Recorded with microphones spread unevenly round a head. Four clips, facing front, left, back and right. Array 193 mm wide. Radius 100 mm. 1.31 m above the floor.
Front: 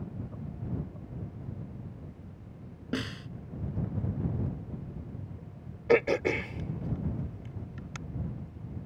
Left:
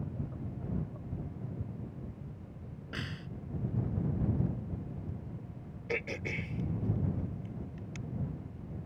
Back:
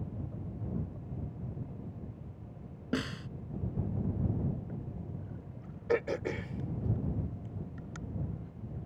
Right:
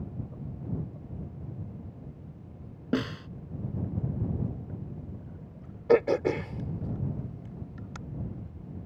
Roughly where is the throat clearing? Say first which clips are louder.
Right 15 dB, front 7 dB; ahead right.